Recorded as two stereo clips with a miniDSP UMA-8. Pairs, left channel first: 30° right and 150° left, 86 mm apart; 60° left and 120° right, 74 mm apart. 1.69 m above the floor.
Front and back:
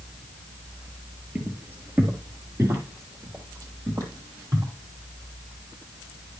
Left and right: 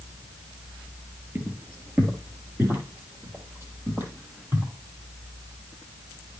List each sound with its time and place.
1.4 s footsteps: 150° right, 2 m; by 4.7 s 170° right, 4 m